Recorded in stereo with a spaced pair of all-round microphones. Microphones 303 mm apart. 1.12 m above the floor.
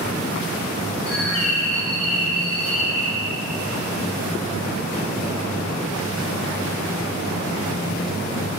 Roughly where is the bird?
Right.